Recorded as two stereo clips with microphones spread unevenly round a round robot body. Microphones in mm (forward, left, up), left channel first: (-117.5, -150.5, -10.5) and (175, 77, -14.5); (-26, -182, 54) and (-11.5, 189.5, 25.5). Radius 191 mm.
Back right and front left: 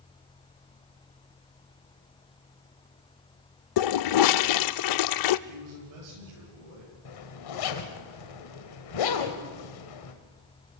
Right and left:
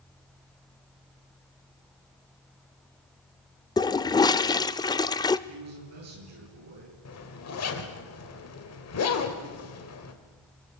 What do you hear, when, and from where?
3.8 s a toilet flushing: 175° right, 0.5 m
5.5 s a man speaking: 40° left, 9.5 m
7.0 s a zipper: 140° right, 2 m